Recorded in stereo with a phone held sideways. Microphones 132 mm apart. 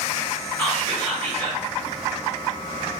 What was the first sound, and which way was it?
Whispering, 15° left (ahead or behind).